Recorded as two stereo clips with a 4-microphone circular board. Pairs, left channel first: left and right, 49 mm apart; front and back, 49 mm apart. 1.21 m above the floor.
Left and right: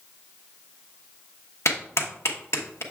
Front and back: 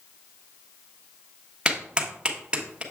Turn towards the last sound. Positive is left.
turn(degrees=105)